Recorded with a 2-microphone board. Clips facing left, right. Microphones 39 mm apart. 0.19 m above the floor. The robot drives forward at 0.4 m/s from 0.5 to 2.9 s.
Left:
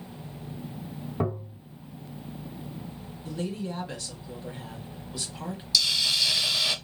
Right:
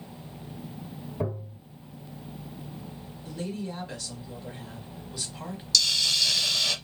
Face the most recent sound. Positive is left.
turn(degrees=10)  # may be behind; listen again after turning